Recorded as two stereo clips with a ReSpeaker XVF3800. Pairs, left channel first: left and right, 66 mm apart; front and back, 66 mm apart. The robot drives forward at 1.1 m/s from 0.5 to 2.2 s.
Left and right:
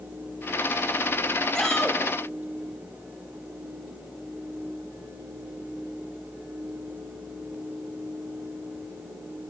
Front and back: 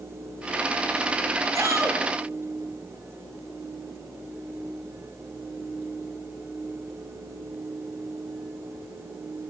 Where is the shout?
170° left, 2.5 m.